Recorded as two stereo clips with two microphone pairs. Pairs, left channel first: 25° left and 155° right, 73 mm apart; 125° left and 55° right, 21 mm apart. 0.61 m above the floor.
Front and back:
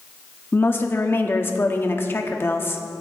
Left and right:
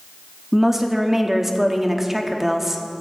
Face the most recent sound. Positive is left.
turn(degrees=0)